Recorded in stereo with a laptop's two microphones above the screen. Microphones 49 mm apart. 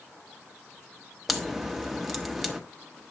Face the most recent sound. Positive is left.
turn(degrees=-5)  # may be behind; listen again after turning